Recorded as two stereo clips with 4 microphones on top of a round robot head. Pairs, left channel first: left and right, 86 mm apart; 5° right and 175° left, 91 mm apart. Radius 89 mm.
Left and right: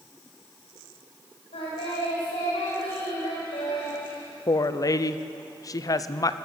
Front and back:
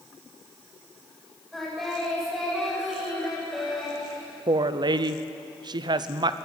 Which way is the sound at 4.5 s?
135° left.